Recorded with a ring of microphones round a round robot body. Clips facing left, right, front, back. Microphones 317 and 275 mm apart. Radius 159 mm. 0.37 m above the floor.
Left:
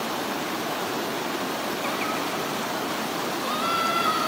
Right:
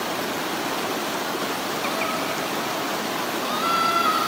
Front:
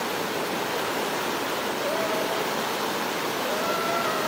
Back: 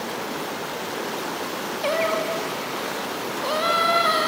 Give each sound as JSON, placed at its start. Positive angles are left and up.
{"t": 1.8, "sound": "singing", "azimuth_deg": 180}